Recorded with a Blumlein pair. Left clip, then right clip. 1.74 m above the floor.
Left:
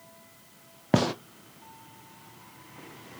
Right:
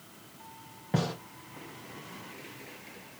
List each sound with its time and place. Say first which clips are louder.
0.9 s a gunshot: left 7 dB; 55° left, 0.6 m